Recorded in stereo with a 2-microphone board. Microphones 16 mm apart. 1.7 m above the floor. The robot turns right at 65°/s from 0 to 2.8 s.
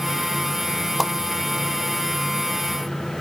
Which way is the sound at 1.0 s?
10° right (ahead or behind).